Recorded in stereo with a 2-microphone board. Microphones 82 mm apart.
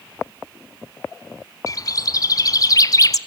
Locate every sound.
1.7 s a bird: 45° left (ahead or behind), 0.8 m